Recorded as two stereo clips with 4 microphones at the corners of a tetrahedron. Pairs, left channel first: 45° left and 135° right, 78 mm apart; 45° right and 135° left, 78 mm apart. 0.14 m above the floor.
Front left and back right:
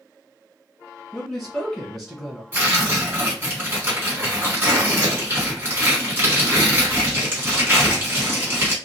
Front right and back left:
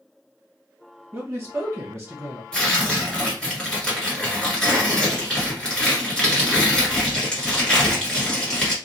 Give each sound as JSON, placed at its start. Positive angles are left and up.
{"t": 1.1, "sound": "a man speaking", "azimuth_deg": 130, "distance_m": 1.7}
{"t": 2.5, "sound": "tearing paper", "azimuth_deg": -115, "distance_m": 1.7}